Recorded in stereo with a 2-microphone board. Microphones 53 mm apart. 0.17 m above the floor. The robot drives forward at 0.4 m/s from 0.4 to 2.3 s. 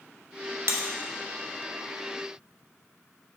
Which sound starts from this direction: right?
Breaking glass, at 0.7 s.